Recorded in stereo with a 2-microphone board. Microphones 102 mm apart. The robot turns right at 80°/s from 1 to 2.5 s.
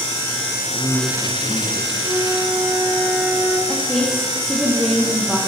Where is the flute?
40° right, 5 m; by 3.6 s 5° right, 5 m.